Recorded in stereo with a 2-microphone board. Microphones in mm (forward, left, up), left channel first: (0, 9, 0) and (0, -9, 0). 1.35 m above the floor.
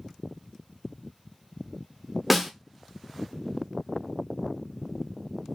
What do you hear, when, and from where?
2.3 s a snare drum: 5° right (ahead or behind), 0.5 m